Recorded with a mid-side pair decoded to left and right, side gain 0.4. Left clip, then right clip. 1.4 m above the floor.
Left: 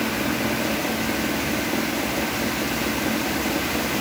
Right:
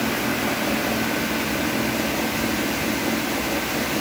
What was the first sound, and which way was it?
Only background noise.